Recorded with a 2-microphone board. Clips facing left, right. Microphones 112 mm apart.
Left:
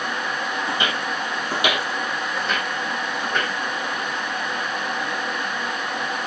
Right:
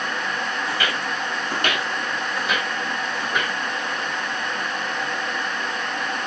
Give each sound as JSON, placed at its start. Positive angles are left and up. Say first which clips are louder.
{"t": 0.7, "sound": "footsteps", "louder": "left 1 dB", "side_deg": 25, "distance_m": 1.7}